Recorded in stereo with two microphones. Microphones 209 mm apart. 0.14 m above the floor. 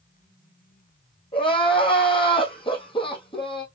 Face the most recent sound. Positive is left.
turn(degrees=25)  # may be behind; listen again after turning